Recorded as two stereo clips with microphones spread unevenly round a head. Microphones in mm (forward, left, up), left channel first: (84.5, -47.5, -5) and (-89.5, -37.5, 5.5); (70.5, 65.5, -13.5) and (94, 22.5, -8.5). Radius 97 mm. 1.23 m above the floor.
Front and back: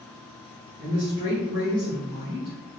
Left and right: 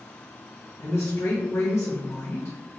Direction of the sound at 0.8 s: 105° left.